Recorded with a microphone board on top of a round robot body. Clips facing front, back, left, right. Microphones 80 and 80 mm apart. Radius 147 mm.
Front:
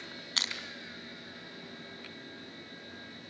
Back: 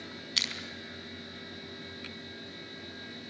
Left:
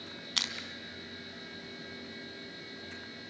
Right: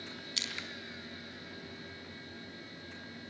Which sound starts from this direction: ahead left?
Crushing, at 0.4 s.